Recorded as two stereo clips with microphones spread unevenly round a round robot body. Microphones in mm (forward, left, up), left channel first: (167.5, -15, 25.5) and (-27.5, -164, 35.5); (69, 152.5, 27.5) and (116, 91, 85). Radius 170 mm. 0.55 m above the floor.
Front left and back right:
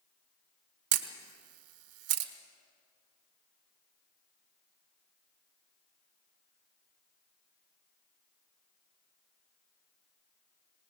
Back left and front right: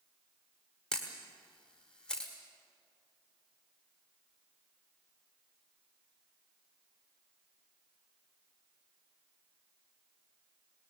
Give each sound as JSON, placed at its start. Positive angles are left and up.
{"t": 0.9, "sound": "a camera shutter", "azimuth_deg": -170, "distance_m": 1.2}